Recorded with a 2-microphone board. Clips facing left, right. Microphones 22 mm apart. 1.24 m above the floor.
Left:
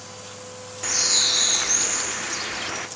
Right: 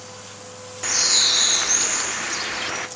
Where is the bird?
10° right (ahead or behind), 0.8 m.